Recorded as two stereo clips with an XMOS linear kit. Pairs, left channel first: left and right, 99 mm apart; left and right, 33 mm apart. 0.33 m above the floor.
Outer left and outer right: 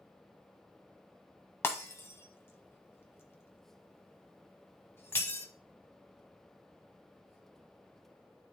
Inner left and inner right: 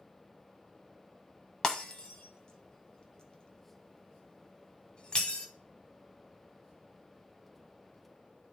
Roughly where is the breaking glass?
Left.